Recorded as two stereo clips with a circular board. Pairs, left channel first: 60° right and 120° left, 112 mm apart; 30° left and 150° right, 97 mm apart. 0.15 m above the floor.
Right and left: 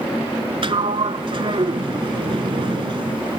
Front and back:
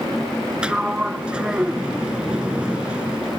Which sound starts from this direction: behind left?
A sliding door, at 0.6 s.